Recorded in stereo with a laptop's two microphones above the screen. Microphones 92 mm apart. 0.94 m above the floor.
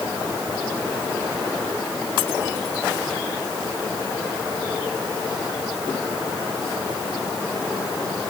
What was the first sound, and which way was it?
Only background noise.